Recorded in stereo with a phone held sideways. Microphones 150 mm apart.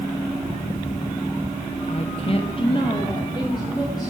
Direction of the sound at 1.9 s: 45° left (ahead or behind).